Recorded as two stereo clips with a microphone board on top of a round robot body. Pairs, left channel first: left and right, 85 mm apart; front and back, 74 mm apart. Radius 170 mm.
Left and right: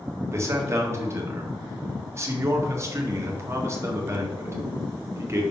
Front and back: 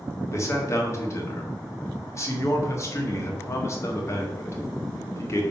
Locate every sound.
0.3 s a man speaking: 40° right, 2 m